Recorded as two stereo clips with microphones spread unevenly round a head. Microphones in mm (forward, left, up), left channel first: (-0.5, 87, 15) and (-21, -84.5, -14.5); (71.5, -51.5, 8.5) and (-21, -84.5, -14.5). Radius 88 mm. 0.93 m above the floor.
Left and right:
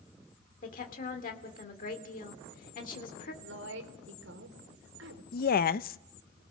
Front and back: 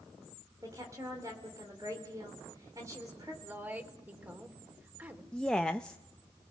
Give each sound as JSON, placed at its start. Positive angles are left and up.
{"t": 0.6, "sound": "a woman speaking", "azimuth_deg": 130, "distance_m": 2.5}
{"t": 3.4, "sound": "a woman speaking", "azimuth_deg": -90, "distance_m": 3.5}
{"t": 5.3, "sound": "a woman speaking", "azimuth_deg": 115, "distance_m": 0.6}